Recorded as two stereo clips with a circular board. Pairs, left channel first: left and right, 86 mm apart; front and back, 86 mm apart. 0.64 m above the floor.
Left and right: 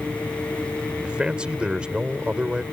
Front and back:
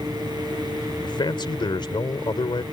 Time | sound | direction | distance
1.0 | a man speaking | 10° right | ?